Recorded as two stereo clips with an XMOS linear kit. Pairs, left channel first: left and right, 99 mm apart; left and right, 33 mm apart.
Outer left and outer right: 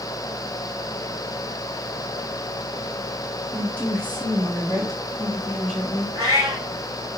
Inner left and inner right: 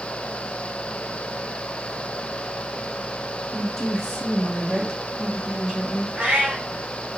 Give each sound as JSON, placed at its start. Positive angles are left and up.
{"t": 3.5, "sound": "a woman speaking", "side_deg": 20, "distance_m": 1.7}
{"t": 6.2, "sound": "a cat meowing", "side_deg": -35, "distance_m": 1.5}